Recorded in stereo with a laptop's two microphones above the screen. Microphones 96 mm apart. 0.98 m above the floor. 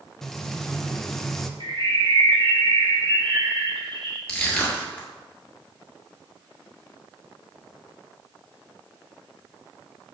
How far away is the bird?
About 1.8 m.